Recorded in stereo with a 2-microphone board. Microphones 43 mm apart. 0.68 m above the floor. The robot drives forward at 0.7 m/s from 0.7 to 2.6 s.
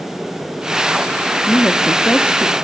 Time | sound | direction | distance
1.5 | a woman speaking | 50° left (ahead or behind) | 0.7 m